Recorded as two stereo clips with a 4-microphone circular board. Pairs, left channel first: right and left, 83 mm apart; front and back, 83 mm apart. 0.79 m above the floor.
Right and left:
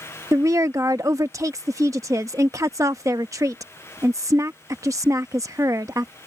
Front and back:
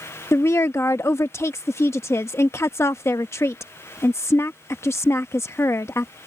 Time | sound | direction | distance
0.3 | a woman speaking | 50° left | ?